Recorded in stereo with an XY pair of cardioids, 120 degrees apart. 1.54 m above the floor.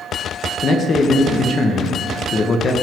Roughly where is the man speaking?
Ahead left.